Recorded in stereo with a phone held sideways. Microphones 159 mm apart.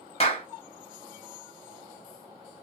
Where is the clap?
40° left (ahead or behind), 1.2 m.